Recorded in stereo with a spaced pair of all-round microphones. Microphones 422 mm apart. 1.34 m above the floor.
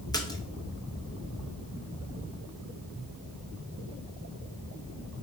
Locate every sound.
0.1 s a splash: 10° left (ahead or behind), 0.7 m